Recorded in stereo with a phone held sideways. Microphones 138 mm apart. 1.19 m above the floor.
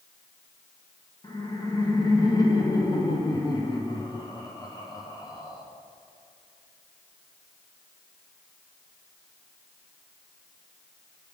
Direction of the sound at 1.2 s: 30° left (ahead or behind).